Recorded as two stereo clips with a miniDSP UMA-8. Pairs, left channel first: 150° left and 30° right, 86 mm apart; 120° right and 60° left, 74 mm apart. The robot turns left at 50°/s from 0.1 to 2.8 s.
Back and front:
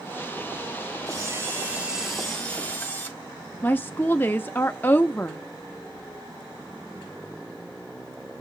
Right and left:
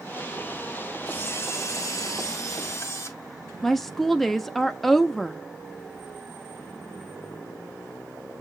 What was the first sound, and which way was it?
A camera shutter, 65° right.